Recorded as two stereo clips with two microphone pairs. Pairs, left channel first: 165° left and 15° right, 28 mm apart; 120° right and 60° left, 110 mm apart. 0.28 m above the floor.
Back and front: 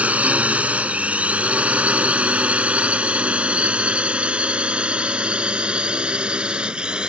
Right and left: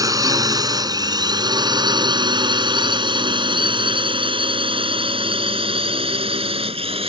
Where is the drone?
5° left; by 7.1 s 40° left.